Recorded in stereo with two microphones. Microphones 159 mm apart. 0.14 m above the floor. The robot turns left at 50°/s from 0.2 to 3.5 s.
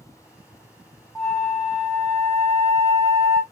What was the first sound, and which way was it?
A flute, centre (ahead or behind).